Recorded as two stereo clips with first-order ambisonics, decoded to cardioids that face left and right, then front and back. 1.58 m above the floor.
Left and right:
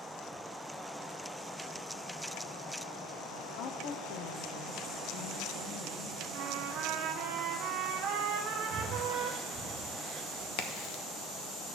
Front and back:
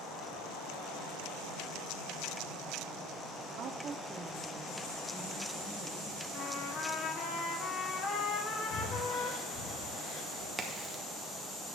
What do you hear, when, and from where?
3.6 s a woman speaking: 135° left, 0.9 m; by 6.2 s 85° left, 2.5 m
6.3 s a trumpet: 55° right, 1.1 m
8.7 s breathing: 35° right, 1.3 m
10.6 s a crack: 95° left, 1.1 m